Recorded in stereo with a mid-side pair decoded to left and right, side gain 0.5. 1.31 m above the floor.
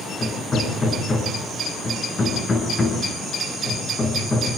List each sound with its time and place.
0.2 s hammering: 35° left, 8 m